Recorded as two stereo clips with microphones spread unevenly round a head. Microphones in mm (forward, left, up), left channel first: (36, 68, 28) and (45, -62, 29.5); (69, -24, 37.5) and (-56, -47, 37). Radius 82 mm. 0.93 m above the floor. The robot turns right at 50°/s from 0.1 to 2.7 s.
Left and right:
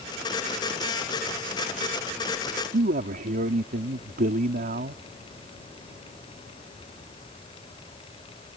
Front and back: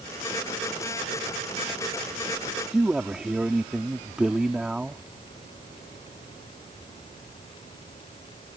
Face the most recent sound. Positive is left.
turn(degrees=-85)